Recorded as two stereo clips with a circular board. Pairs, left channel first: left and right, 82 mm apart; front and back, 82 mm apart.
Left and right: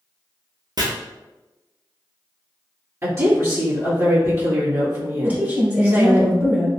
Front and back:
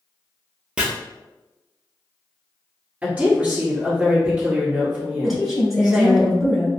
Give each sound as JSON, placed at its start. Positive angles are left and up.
{"t": 0.8, "sound": "chopping", "azimuth_deg": -105, "distance_m": 0.8}
{"t": 3.0, "sound": "a woman speaking", "azimuth_deg": -120, "distance_m": 1.6}
{"t": 5.2, "sound": "a woman speaking", "azimuth_deg": -95, "distance_m": 1.1}